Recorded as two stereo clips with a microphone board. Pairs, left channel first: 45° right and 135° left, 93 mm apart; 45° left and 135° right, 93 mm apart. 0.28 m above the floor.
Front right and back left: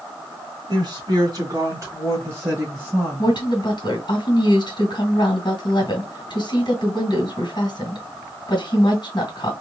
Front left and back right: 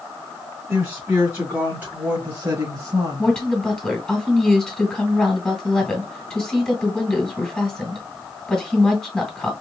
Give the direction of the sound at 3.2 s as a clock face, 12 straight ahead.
1 o'clock.